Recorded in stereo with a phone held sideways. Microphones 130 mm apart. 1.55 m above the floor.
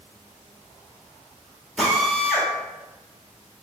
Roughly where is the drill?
Centre.